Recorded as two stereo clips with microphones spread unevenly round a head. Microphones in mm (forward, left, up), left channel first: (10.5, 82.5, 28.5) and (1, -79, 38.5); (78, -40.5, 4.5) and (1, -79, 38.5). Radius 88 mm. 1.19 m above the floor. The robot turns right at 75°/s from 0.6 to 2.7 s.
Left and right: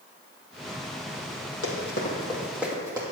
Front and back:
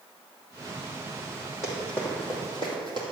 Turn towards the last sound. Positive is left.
turn(degrees=-160)